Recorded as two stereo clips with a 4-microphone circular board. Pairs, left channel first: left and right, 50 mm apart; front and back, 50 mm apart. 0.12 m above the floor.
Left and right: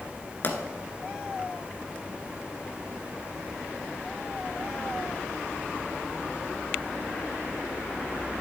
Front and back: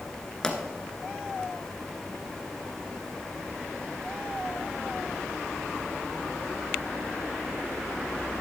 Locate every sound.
0.4 s a pop: 70° left, 1.4 m